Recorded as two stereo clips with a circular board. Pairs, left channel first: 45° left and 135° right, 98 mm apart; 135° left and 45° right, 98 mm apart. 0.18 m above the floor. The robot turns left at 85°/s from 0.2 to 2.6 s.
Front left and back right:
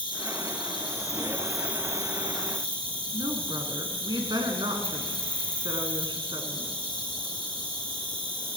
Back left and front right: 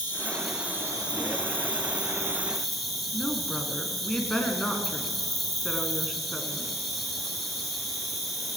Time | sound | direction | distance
0.0 | an insect | 70° left | 3 m
3.1 | a woman speaking | 145° right | 2 m